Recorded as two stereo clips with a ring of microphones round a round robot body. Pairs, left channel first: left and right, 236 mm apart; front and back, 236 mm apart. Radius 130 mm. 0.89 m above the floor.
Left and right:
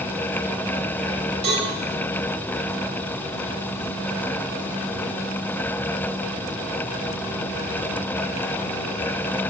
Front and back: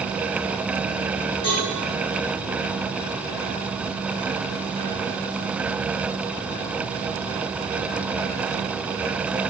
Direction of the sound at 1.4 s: 75° right.